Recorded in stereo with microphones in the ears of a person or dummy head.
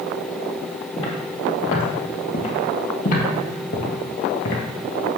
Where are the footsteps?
35° left (ahead or behind), 3 m; by 4.6 s 50° left (ahead or behind), 1.9 m.